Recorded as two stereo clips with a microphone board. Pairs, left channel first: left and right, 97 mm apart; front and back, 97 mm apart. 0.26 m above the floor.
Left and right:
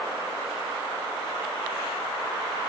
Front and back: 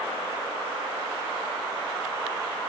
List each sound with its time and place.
Only background noise.